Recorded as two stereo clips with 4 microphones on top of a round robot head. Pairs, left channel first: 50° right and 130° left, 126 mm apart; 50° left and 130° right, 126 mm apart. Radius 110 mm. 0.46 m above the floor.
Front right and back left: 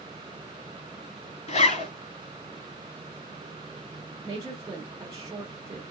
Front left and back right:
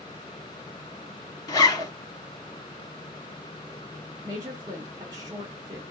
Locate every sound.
1.5 s a zipper: 15° right, 2 m
4.2 s a woman speaking: 175° right, 1.6 m